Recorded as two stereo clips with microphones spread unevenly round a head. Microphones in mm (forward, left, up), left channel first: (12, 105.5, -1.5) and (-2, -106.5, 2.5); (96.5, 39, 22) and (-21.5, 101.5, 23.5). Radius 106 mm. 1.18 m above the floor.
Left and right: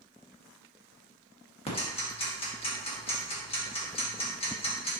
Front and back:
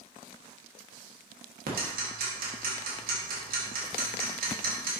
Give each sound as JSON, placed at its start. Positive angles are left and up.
{"t": 1.7, "sound": "ticking", "azimuth_deg": 150, "distance_m": 1.8}